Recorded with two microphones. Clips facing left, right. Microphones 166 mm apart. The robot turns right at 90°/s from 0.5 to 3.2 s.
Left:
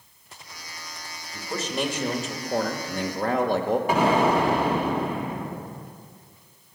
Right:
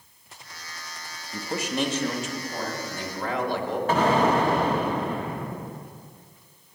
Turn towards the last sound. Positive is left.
turn(degrees=15)  # may be behind; listen again after turning